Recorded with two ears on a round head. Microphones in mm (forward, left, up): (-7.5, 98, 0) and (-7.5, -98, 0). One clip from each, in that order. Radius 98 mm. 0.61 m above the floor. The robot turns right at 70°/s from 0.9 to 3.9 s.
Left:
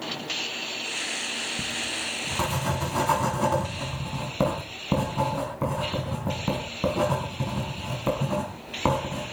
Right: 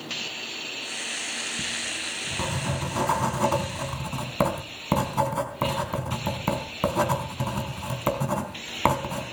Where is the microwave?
I don't hear a microwave.